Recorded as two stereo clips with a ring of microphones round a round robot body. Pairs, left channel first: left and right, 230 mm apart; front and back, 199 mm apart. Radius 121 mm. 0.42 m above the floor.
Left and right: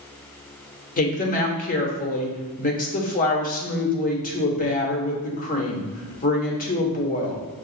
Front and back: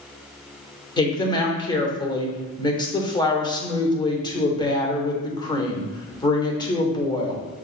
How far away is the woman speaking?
About 1.0 m.